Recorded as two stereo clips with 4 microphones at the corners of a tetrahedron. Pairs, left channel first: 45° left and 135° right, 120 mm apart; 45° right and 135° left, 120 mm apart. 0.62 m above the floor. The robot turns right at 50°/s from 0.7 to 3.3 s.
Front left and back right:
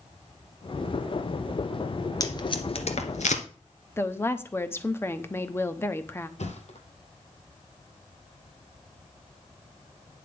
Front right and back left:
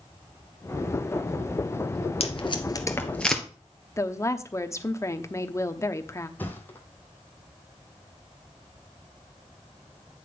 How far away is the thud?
About 1.8 m.